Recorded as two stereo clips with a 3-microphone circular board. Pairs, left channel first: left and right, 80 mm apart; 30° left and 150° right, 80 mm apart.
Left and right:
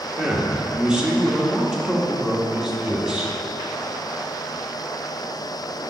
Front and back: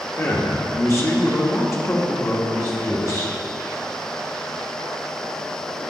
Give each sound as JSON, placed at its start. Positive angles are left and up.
{"t": 0.2, "sound": "a man speaking", "azimuth_deg": -10, "distance_m": 1.3}